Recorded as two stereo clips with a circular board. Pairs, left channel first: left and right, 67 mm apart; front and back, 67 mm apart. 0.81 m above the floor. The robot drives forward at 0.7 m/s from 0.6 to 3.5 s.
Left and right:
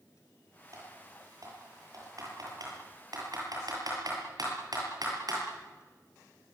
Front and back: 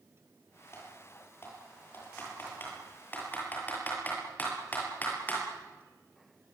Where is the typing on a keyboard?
55° right, 8.5 m; by 5.4 s 65° right, 7.5 m.